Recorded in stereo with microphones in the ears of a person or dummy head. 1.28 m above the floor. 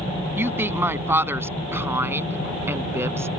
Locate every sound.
0.4 s a woman speaking: 15° right (ahead or behind)